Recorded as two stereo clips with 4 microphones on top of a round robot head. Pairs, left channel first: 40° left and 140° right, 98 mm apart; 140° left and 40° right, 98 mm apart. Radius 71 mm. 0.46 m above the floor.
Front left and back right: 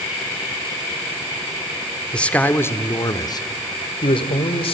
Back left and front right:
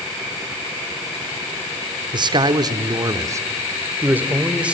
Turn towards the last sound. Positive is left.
turn(degrees=40)